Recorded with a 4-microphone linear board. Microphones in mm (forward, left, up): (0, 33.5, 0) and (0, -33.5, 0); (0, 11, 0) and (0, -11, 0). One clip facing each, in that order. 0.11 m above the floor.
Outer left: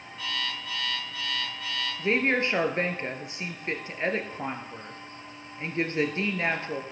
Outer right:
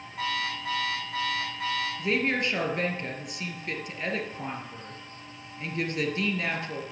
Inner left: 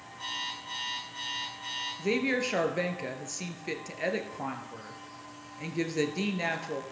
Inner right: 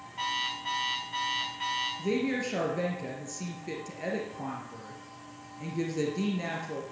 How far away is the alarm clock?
About 5.5 m.